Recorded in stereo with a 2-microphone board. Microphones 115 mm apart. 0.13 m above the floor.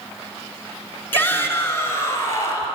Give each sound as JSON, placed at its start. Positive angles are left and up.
{"t": 1.1, "sound": "a shout", "side_deg": 20, "distance_m": 1.6}